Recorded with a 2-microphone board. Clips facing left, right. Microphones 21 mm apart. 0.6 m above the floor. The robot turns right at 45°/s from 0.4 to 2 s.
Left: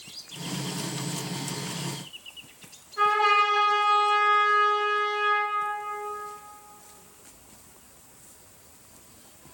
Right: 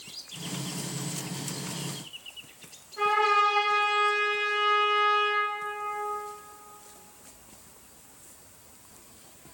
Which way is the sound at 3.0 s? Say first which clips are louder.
Left 2 dB; 15° left (ahead or behind).